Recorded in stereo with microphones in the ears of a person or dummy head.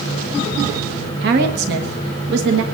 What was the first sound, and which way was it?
A woman speaking, 55° right (ahead or behind).